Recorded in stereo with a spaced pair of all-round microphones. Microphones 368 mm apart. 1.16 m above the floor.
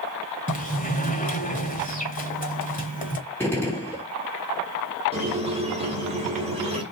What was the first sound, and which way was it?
A sliding door, 20° left (ahead or behind).